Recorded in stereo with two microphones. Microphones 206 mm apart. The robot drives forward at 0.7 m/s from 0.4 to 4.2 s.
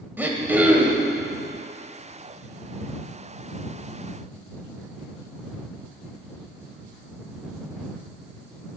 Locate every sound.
0.2 s throat clearing: 10° right (ahead or behind), 1.1 m; by 1.1 s 5° right (ahead or behind), 1.6 m